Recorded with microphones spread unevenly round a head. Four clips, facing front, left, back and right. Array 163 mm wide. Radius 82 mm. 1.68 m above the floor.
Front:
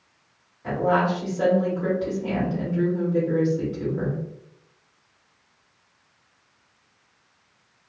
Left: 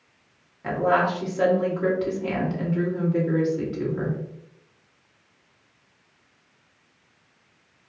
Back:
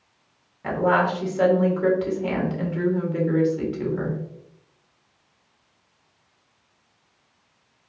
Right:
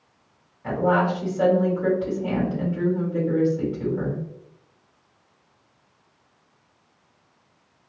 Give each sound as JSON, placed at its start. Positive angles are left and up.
{"t": 0.6, "sound": "a woman speaking", "azimuth_deg": 135, "distance_m": 1.9}